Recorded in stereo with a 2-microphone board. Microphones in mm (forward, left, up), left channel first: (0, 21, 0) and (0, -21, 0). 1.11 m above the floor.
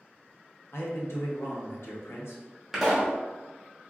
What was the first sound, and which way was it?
A man speaking, 75° left (ahead or behind).